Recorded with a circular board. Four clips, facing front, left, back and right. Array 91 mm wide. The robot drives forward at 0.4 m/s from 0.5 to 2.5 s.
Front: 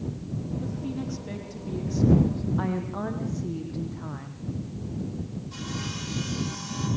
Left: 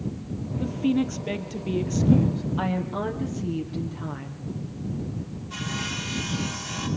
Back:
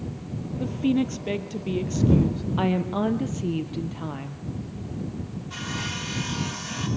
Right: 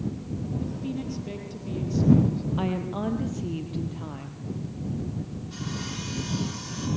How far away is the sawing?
About 8 m.